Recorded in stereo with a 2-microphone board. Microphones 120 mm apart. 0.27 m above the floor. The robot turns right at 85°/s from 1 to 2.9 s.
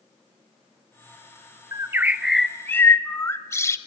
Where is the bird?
55° right, 0.8 m; by 3.8 s 45° left, 0.8 m.